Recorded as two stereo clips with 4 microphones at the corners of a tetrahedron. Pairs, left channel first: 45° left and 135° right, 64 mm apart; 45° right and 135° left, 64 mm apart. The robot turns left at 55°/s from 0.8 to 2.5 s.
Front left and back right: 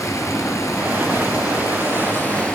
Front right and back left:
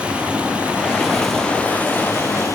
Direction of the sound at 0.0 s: 65° left.